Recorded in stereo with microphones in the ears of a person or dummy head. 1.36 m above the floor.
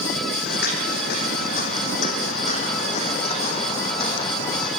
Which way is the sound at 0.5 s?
65° left (ahead or behind).